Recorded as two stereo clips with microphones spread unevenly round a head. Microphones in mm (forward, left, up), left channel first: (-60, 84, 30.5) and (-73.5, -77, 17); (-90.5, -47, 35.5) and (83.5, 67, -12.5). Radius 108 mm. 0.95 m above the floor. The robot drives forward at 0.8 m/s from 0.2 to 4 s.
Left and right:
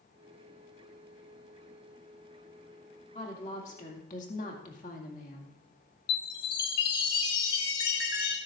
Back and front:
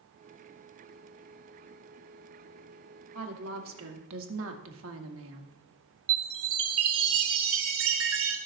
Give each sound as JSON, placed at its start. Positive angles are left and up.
{"t": 3.1, "sound": "a woman speaking", "azimuth_deg": 25, "distance_m": 2.5}
{"t": 6.1, "sound": "a chime", "azimuth_deg": 60, "distance_m": 1.9}